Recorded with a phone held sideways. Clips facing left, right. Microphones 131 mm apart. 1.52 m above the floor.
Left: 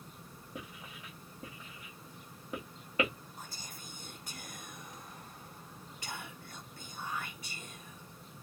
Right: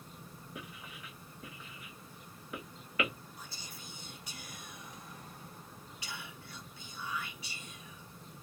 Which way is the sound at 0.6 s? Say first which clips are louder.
Left 2 dB; 30° left (ahead or behind).